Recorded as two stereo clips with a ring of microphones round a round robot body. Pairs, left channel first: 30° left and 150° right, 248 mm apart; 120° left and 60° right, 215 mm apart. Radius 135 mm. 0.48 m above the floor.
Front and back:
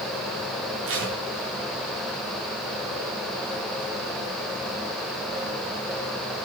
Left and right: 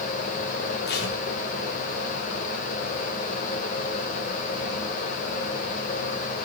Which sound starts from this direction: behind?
Tape being pulled, at 0.9 s.